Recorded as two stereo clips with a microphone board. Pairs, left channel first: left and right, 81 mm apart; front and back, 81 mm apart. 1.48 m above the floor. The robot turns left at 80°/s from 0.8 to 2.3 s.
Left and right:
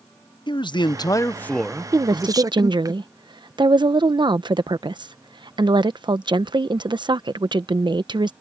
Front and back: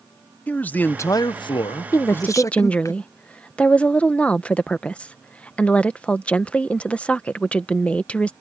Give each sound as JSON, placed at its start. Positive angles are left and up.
{"t": 0.5, "sound": "a man speaking", "azimuth_deg": 70}
{"t": 1.9, "sound": "a woman speaking", "azimuth_deg": -45}